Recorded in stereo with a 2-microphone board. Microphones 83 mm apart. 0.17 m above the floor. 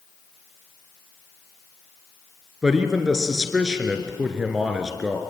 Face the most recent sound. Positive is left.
turn(degrees=-5)  # may be behind; listen again after turning